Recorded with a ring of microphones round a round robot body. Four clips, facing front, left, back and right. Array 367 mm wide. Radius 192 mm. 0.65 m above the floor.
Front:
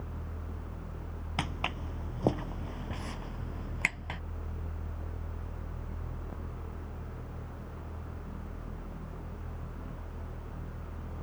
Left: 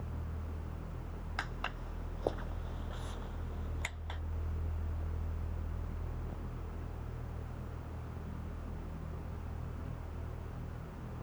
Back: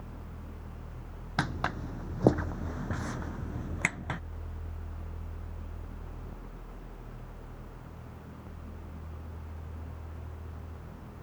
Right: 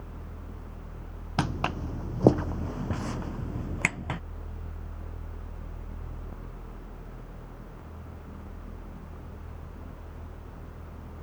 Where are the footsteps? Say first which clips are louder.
Right 13 dB, back 4 dB; 100° right; by 4.2 s 110° right.